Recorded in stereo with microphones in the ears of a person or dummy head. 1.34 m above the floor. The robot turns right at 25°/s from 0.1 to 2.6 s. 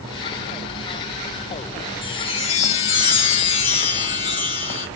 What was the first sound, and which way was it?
A chime, 30° left (ahead or behind).